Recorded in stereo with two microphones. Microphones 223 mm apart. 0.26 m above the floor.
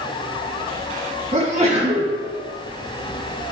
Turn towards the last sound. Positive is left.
turn(degrees=-30)  # may be behind; listen again after turning